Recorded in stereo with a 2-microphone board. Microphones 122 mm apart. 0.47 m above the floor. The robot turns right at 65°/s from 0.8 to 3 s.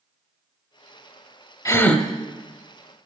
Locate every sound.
1.6 s a gasp: 25° left (ahead or behind), 0.7 m; by 2.0 s centre (ahead or behind), 0.7 m